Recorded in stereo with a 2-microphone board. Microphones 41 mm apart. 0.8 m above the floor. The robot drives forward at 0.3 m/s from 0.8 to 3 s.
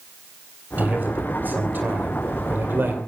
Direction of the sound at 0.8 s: 45° right (ahead or behind).